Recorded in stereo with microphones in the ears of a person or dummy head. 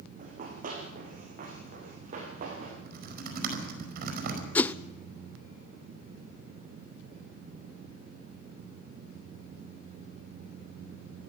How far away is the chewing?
No chewing in this recording.